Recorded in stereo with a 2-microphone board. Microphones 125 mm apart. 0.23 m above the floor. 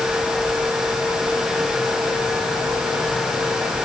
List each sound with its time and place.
Only background noise.